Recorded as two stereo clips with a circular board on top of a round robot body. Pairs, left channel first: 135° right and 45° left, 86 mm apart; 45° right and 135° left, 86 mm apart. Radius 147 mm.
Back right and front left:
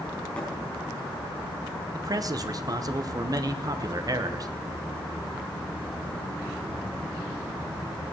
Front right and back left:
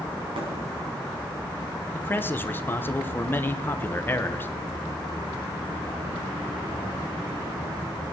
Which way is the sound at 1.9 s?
15° left.